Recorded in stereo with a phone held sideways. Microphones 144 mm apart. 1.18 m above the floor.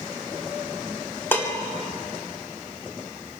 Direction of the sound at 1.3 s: 15° left (ahead or behind).